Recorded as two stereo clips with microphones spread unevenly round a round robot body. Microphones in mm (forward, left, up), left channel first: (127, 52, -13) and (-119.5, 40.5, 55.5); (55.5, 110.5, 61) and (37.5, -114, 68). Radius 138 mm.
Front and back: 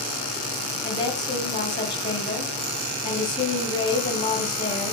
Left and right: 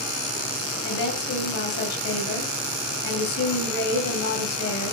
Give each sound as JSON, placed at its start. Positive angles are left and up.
{"t": 0.8, "sound": "a woman speaking", "azimuth_deg": 75, "distance_m": 7.5}